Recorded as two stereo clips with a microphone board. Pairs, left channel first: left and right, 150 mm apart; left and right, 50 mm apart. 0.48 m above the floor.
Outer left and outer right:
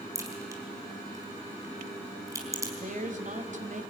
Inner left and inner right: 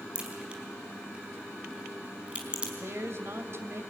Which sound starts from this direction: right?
A woman speaking, at 2.8 s.